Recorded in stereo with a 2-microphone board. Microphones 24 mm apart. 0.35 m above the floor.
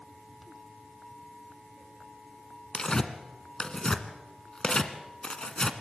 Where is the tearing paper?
35° left (ahead or behind), 1.8 m.